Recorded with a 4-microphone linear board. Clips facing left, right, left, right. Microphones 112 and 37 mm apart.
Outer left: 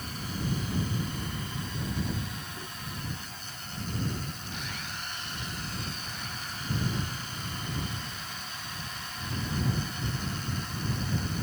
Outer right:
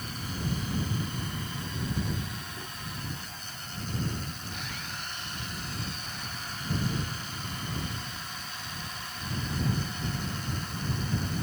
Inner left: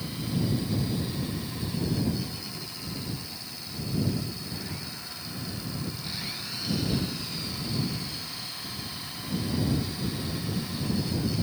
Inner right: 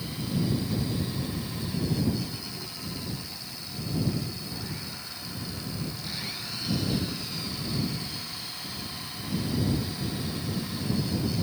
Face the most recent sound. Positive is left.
No sound to turn to.